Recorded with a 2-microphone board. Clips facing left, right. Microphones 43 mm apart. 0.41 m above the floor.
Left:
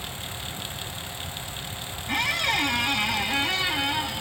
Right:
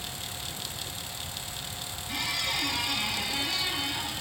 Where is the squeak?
55° left (ahead or behind), 1.0 m.